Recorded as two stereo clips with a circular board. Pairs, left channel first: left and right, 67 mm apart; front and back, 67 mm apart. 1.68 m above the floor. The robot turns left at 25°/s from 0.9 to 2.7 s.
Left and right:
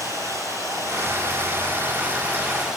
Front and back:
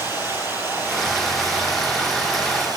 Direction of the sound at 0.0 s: 125° right.